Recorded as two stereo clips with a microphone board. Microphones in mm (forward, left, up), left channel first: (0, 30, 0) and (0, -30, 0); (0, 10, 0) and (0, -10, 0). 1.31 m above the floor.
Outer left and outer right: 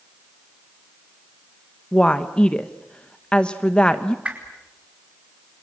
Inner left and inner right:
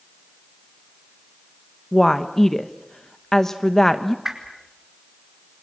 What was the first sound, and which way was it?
A woman speaking, 20° left (ahead or behind).